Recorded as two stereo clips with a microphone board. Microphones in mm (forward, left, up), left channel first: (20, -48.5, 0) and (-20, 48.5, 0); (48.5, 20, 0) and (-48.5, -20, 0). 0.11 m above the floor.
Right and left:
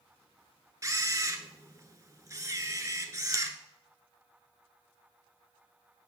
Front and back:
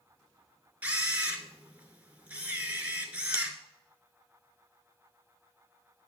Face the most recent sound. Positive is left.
turn(degrees=140)